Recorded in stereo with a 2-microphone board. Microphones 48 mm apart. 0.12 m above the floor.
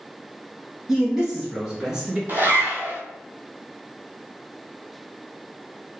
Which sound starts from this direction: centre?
A man speaking, at 0.9 s.